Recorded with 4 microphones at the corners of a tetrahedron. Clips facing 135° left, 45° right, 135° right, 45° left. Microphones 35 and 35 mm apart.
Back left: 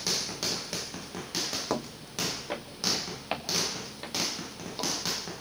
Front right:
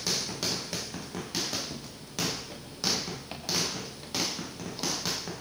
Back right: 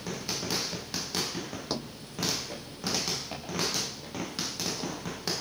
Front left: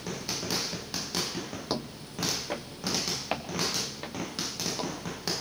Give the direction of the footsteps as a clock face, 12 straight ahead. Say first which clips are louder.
Back left 7 dB, front left 4 dB; 8 o'clock.